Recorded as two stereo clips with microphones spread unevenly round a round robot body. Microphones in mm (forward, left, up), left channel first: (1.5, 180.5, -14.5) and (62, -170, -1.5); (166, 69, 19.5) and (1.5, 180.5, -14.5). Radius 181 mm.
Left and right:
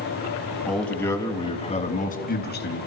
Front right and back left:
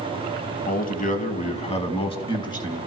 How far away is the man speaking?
About 3 m.